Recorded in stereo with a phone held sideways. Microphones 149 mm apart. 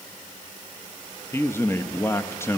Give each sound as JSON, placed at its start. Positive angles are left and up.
{"t": 1.3, "sound": "a man speaking", "side_deg": 15, "distance_m": 0.7}